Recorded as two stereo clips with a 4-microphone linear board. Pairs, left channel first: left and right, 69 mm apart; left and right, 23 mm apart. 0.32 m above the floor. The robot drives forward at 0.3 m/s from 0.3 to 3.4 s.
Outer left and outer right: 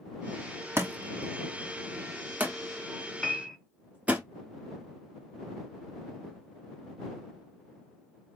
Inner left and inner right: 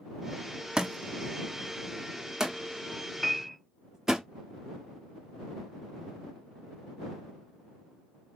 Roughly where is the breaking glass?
No breaking glass in this recording.